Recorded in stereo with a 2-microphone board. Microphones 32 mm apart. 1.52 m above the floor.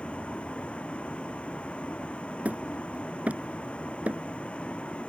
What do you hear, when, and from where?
0.0 s a vehicle: 40° left (ahead or behind)
2.5 s hammering: 40° right (ahead or behind)